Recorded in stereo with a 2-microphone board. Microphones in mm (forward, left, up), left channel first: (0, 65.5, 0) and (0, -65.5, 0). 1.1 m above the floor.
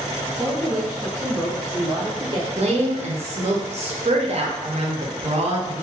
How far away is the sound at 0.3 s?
About 1.3 m.